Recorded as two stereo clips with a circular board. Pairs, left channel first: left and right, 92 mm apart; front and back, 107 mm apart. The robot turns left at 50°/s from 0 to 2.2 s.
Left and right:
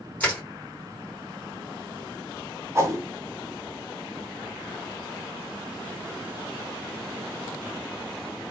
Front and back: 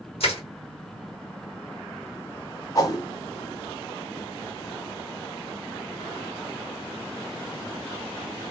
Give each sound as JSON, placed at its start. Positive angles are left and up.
{"t": 0.2, "sound": "crushing", "azimuth_deg": 15, "distance_m": 3.0}
{"t": 2.8, "sound": "a whoosh", "azimuth_deg": -40, "distance_m": 1.5}